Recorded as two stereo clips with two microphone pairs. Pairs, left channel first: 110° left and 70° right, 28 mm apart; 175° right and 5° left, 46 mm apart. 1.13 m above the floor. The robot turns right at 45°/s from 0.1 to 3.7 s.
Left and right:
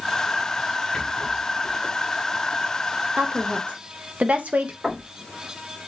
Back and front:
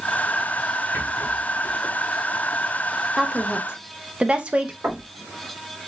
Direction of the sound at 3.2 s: 80° right.